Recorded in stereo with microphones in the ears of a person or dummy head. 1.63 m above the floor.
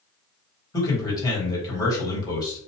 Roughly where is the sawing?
I don't hear sawing.